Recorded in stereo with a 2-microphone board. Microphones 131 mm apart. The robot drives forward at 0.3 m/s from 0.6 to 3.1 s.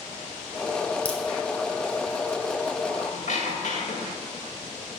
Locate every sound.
1.1 s a crack: 10° left (ahead or behind), 1.1 m
2.9 s a squeak: 60° left (ahead or behind), 1.8 m